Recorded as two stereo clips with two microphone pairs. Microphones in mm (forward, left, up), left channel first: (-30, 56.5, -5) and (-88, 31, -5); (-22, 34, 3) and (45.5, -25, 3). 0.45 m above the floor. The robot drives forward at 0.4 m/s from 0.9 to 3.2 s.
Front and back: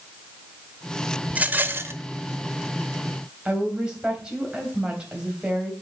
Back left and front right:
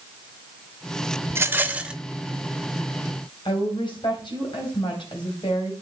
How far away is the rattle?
About 0.6 m.